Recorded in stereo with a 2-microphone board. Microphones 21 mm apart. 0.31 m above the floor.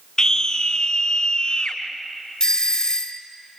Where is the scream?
25° left (ahead or behind), 2 m; by 1.8 s 35° left (ahead or behind), 3 m.